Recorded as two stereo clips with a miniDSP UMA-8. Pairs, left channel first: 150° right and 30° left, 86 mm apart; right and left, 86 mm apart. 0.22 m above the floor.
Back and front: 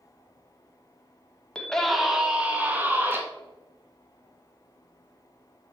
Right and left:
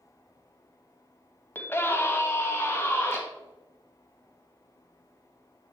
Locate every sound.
1.6 s a scream: 85° right, 1.0 m; by 3.2 s 35° right, 2.0 m